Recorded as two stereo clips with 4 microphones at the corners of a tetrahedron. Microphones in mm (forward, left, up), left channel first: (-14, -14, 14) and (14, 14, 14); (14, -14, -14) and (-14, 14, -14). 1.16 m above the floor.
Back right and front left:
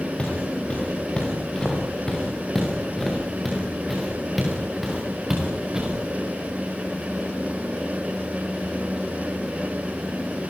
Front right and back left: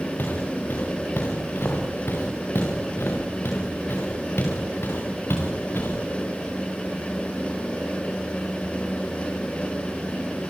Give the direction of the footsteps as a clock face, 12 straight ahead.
2 o'clock.